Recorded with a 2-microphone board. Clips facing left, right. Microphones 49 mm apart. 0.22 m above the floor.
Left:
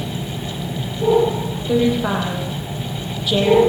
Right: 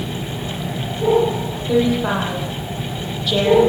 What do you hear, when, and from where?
1.7 s a woman speaking: 5° left (ahead or behind), 7.5 m